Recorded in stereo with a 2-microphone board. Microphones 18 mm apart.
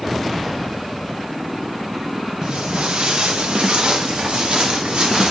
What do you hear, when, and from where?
2.4 s footsteps: 75° right (ahead or behind), 1.0 m; by 5.3 s 70° right (ahead or behind), 2.5 m